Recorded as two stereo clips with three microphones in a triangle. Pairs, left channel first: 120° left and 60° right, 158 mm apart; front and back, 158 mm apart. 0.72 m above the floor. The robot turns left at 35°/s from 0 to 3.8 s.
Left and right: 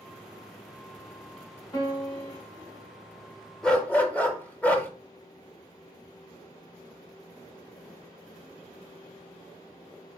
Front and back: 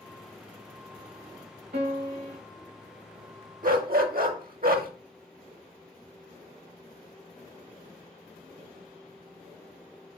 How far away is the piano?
About 1.9 m.